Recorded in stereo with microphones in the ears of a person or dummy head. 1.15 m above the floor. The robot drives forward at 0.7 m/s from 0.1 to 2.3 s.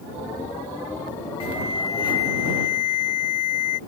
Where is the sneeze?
No sneeze in this recording.